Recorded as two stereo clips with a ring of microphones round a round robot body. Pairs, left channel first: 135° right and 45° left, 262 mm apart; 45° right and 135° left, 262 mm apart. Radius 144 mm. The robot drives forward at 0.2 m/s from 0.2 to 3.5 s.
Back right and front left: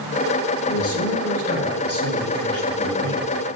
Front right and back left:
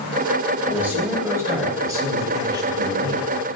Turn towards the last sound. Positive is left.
turn(degrees=-155)